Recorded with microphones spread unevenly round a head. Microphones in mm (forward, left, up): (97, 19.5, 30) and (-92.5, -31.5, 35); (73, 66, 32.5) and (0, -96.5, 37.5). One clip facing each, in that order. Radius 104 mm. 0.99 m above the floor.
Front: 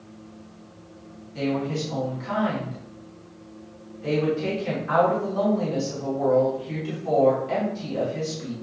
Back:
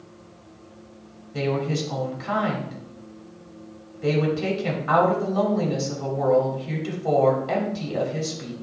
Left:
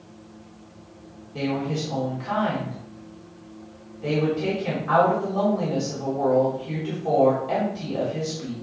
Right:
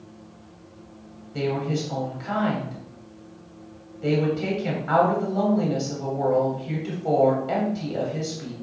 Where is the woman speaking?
170° left, 3 m.